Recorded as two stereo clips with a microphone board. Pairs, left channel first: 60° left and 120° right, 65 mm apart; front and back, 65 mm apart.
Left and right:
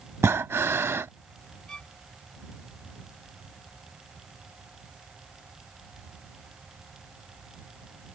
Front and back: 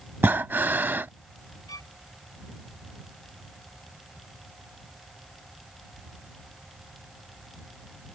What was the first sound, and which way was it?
Breathing, 135° right.